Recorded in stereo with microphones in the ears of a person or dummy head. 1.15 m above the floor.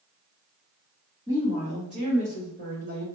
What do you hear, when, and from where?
1.3 s a woman speaking: 20° right (ahead or behind), 1.7 m; by 3.0 s 70° right (ahead or behind), 1.5 m